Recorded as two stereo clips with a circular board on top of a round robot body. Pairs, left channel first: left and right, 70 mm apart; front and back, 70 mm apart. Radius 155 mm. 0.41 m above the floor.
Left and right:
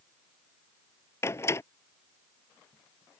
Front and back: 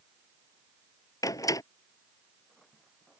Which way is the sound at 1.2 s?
40° left.